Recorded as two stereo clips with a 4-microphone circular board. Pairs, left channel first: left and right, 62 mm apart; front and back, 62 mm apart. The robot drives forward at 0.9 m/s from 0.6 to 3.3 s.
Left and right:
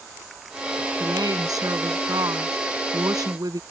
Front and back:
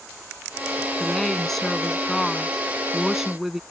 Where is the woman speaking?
85° right; by 3.6 s 95° right.